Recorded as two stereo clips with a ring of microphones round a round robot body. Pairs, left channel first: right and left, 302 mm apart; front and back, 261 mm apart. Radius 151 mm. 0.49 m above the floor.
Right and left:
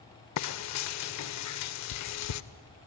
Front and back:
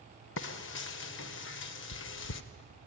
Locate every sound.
0.4 s frying: 50° right, 0.5 m